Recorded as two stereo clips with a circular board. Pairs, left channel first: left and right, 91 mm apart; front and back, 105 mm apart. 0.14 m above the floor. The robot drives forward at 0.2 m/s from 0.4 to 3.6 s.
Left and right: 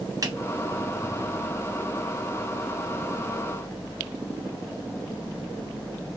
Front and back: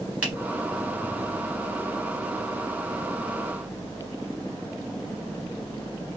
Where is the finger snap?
110° right, 1.2 m.